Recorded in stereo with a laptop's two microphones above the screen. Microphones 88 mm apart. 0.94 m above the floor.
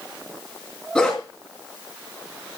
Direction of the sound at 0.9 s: 10° left (ahead or behind).